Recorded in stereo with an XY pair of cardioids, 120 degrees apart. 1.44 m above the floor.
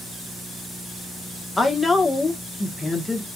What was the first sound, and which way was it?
A woman speaking, 15° left.